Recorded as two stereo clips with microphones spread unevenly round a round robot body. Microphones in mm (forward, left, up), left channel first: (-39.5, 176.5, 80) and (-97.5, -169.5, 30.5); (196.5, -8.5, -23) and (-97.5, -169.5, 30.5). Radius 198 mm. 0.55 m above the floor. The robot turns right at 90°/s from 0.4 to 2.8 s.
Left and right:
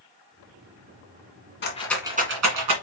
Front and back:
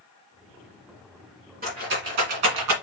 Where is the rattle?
140° left, 2.0 m; by 2.7 s 120° right, 2.0 m.